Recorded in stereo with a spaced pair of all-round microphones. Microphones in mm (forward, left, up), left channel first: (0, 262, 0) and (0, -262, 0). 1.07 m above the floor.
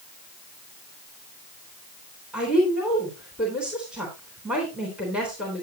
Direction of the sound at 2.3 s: Centre (ahead or behind).